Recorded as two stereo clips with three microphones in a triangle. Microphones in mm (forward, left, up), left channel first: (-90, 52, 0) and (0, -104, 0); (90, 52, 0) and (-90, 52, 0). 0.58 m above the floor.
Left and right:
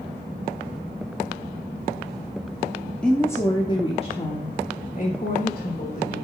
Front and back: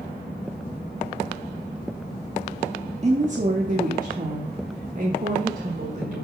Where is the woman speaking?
155° right, 1.0 m; by 6.2 s 140° left, 2 m.